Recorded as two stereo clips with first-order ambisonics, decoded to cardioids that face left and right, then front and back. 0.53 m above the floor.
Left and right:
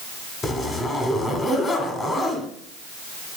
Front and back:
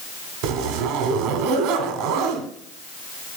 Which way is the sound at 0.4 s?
165° left.